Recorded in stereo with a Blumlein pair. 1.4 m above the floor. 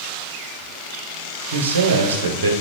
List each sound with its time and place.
1.5 s a man speaking: 65° right, 0.6 m